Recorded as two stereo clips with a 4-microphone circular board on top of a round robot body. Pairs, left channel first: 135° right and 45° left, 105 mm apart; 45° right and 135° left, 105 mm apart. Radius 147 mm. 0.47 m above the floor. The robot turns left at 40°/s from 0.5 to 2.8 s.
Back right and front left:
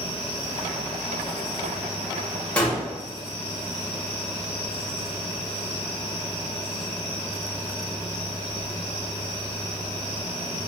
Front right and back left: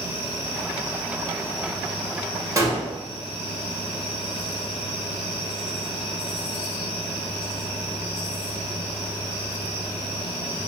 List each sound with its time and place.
2.6 s a gunshot: 160° left, 1.2 m; by 2.8 s 150° left, 1.2 m